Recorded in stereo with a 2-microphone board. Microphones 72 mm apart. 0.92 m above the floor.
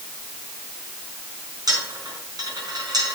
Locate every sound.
1.7 s a dropped coin: 65° right (ahead or behind), 5 m